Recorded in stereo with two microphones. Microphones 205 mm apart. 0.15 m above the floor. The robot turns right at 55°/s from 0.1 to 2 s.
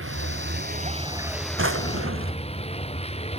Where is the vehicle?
75° right; by 3.4 s 30° left.